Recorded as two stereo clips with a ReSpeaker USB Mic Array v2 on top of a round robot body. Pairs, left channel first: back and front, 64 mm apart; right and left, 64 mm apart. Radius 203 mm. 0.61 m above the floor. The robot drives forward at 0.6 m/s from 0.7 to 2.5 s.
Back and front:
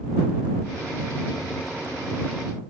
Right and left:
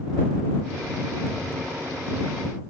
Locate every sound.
Only background noise.